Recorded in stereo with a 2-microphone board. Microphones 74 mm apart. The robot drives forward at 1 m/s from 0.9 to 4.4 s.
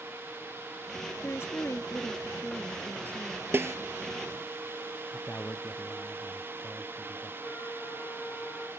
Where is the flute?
25° left (ahead or behind).